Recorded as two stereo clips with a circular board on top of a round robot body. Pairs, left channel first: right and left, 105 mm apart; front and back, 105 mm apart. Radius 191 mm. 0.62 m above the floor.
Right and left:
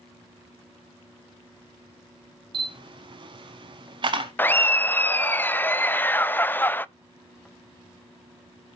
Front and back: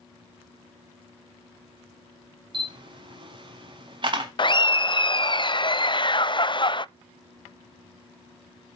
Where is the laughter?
25° right, 0.8 m.